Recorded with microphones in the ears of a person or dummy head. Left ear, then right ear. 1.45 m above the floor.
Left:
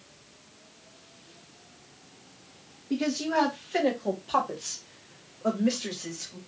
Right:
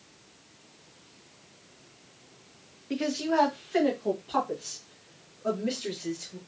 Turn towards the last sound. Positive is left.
turn(degrees=40)  # may be behind; listen again after turning